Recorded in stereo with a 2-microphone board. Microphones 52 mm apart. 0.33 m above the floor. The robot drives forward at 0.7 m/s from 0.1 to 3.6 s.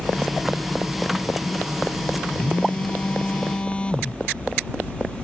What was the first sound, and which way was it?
A phone buzzing, 25° left (ahead or behind).